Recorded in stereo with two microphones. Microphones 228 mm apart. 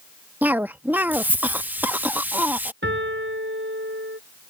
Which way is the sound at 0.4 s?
10° right (ahead or behind).